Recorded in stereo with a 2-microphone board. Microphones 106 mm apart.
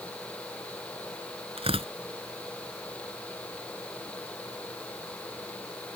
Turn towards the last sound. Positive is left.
turn(degrees=-65)  # may be behind; listen again after turning